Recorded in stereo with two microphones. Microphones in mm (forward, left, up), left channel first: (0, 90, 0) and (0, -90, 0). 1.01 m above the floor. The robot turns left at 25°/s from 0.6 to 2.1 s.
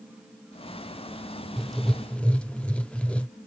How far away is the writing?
About 0.5 m.